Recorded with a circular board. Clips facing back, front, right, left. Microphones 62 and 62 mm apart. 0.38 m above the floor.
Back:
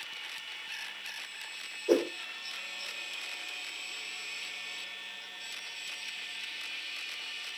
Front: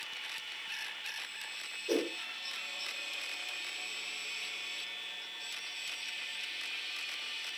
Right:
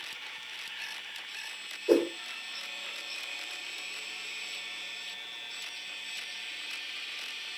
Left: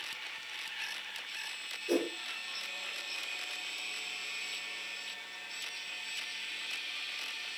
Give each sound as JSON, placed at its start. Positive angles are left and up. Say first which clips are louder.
{"t": 1.9, "sound": "a whoosh", "louder": "back 6 dB, right 7 dB", "azimuth_deg": -130, "distance_m": 2.5}